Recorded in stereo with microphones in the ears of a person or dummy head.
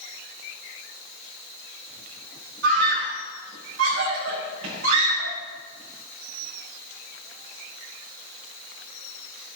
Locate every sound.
2.6 s a scream: 70° right (ahead or behind), 6.5 m